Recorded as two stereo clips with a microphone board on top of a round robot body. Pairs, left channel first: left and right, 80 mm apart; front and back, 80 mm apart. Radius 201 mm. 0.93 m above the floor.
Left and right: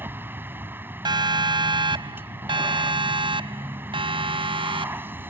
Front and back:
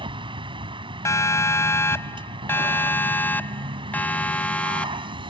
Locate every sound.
0.0 s a vehicle: 155° right
1.1 s a siren: 55° right; by 5.1 s 80° right